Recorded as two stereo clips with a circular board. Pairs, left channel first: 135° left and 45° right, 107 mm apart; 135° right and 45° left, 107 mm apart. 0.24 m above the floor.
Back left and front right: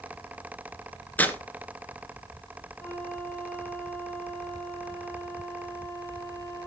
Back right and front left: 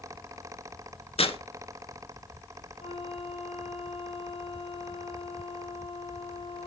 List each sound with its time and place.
1.2 s tearing paper: 150° right, 1.5 m
2.8 s a flute: 160° right, 7 m